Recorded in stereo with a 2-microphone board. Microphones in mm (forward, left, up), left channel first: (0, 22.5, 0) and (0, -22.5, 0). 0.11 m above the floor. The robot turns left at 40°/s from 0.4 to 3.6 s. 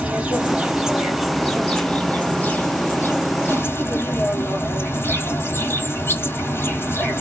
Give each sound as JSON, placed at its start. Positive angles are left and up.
{"t": 0.0, "sound": "an insect", "azimuth_deg": -145, "distance_m": 1.2}